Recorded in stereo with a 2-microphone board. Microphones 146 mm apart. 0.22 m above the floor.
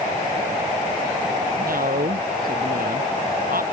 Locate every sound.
1.6 s a man speaking: 80° right